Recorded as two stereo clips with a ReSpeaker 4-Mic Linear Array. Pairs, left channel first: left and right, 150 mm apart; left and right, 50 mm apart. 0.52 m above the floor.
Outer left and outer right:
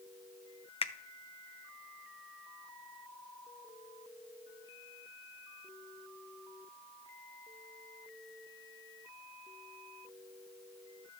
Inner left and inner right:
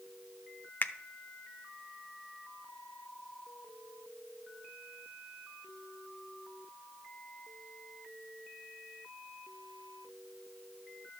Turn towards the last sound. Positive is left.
turn(degrees=40)  # may be behind; listen again after turning